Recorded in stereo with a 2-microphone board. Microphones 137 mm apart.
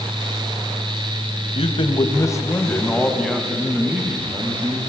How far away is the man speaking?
About 2 m.